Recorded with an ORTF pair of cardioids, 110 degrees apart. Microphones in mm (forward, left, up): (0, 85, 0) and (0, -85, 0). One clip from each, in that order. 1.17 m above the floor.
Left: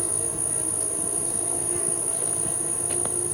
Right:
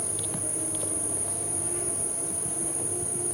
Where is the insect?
30° left, 1.3 m.